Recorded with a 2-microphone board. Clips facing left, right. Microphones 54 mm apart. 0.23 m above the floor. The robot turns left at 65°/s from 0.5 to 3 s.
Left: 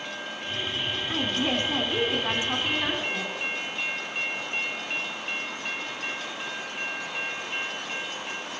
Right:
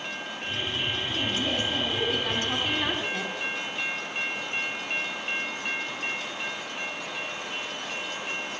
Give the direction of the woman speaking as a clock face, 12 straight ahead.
8 o'clock.